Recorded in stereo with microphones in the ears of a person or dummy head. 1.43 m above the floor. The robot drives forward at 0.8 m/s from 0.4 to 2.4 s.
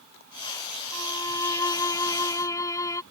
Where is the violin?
20° left (ahead or behind).